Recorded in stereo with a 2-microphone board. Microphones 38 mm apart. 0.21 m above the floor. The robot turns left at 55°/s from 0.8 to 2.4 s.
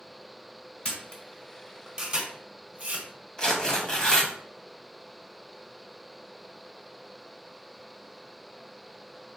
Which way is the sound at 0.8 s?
35° left (ahead or behind).